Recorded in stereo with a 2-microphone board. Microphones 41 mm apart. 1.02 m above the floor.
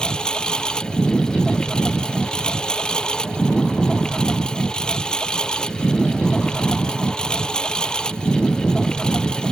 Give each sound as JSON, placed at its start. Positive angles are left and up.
{"t": 0.0, "sound": "a lawn mower", "side_deg": 20}